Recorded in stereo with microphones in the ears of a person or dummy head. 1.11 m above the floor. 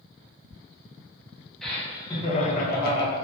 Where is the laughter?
Centre (ahead or behind), 1.2 m; by 3.1 s 75° left (ahead or behind), 1.1 m.